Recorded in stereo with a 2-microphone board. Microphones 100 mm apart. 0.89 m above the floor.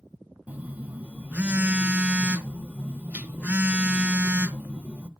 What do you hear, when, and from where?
0.5 s a phone buzzing: 15° right (ahead or behind), 0.6 m